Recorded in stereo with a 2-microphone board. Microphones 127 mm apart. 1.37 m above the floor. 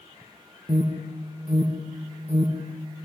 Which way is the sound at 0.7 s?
55° right (ahead or behind).